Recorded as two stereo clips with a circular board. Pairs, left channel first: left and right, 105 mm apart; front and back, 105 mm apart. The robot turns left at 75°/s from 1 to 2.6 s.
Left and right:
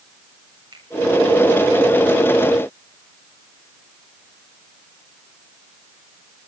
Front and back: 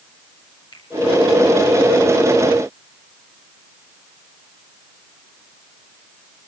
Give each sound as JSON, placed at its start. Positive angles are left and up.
{"t": 0.7, "sound": "a finger snap", "azimuth_deg": -45, "distance_m": 8.5}